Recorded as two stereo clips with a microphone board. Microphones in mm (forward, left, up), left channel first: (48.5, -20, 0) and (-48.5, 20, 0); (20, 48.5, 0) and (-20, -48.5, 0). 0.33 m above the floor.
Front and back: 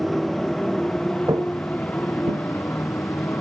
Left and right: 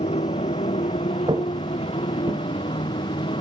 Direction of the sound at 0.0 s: 65° left.